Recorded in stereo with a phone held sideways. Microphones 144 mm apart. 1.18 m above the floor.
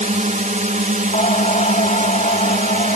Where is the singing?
55° left (ahead or behind).